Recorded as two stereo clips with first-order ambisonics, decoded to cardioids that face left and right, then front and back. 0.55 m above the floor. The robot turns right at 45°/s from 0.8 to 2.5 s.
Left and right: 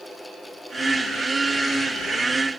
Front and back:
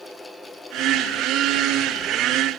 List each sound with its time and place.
Only background noise.